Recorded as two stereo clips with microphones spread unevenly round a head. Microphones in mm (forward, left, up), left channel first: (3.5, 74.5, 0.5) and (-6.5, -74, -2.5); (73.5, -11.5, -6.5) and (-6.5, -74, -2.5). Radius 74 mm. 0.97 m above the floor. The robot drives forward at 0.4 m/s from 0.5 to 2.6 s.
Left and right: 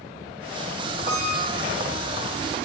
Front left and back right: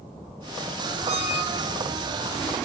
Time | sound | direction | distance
1.1 | a squeak | 110° right | 1.4 m